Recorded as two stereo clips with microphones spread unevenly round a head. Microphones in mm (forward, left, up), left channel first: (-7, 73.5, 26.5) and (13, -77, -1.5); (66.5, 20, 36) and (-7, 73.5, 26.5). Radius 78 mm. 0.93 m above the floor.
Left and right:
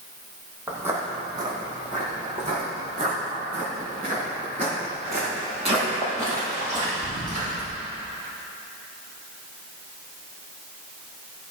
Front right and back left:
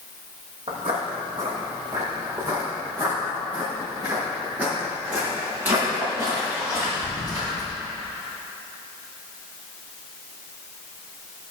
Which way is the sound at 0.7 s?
165° right.